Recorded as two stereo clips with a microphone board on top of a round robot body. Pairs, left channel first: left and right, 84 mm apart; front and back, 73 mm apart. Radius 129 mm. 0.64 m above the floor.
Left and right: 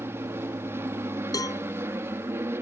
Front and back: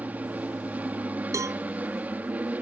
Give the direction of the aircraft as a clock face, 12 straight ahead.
4 o'clock.